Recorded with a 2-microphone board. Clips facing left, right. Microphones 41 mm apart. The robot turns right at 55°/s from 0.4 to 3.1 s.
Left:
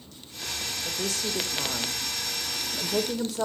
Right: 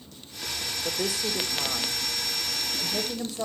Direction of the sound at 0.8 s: 20° right.